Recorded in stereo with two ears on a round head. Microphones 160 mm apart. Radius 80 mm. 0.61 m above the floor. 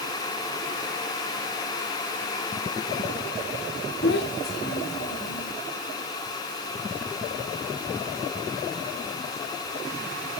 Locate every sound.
4.0 s a child speaking: 65° left (ahead or behind), 1.2 m